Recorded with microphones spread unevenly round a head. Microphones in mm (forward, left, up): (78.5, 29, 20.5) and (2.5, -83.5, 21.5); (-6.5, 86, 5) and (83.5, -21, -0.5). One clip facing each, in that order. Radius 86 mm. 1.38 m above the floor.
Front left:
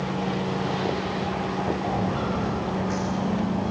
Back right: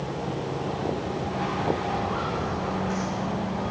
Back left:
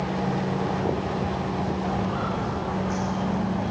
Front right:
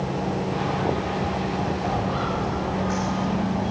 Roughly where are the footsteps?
Ahead.